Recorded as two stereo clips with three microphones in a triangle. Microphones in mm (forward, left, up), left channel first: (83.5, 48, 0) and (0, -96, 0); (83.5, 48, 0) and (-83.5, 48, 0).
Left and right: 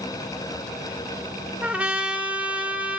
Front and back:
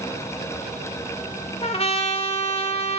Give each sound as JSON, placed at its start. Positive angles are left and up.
{"t": 1.6, "sound": "a trumpet", "azimuth_deg": -40, "distance_m": 1.2}